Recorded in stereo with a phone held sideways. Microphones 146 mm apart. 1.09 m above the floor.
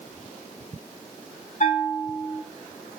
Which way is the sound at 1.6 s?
60° left (ahead or behind).